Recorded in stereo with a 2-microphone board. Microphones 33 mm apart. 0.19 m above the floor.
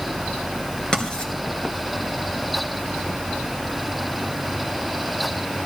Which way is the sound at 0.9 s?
25° left (ahead or behind).